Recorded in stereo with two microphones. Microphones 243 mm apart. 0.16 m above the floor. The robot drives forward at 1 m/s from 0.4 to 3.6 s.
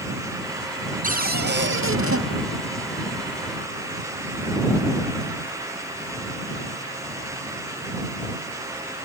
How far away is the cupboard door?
About 1.5 m.